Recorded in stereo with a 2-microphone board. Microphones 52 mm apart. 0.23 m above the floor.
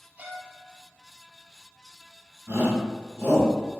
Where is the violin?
30° right (ahead or behind), 0.6 m.